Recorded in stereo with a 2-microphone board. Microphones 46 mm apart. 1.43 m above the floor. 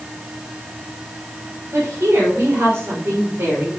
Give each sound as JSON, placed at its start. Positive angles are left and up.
{"t": 1.7, "sound": "a woman speaking", "side_deg": -75, "distance_m": 5.0}